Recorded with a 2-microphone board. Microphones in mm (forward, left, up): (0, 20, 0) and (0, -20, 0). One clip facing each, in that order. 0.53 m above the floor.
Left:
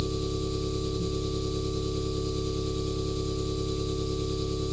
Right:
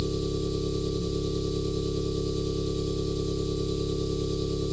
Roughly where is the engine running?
Left.